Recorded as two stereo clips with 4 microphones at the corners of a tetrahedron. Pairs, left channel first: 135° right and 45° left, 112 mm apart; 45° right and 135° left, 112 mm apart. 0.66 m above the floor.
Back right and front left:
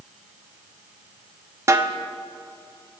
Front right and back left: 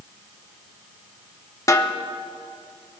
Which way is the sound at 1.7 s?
5° right.